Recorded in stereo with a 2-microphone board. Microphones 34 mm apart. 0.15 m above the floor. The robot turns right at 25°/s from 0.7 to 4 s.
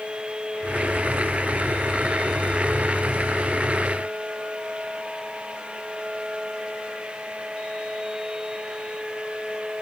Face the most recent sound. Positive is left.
No sound to turn to.